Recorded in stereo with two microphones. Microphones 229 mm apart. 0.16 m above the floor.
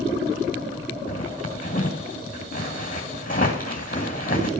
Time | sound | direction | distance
1.1 | a zipper | 35° left (ahead or behind) | 2.5 m